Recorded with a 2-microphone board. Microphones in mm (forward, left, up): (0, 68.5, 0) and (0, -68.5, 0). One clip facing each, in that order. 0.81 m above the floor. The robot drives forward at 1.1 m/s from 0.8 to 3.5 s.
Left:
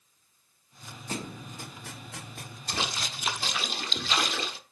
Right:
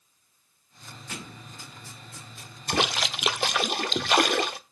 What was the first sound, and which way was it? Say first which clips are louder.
A thud: left 5 dB; 35° left (ahead or behind).